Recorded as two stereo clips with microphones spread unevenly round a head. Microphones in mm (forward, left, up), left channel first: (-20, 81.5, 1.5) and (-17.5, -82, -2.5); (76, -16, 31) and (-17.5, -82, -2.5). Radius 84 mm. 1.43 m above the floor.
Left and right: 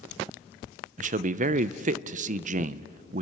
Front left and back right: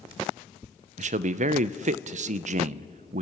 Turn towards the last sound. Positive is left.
turn(degrees=-125)